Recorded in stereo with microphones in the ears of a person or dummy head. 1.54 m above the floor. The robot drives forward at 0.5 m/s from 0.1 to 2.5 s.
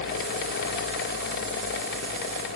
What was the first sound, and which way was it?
Only background noise.